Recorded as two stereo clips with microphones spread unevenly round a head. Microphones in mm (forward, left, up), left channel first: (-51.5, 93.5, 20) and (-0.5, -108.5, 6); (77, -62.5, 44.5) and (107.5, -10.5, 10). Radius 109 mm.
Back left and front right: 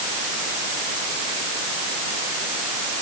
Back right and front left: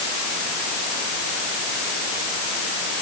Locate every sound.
Only background noise.